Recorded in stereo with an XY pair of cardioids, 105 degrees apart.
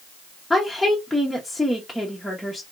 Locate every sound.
0.5 s a woman speaking: 5° left, 0.9 m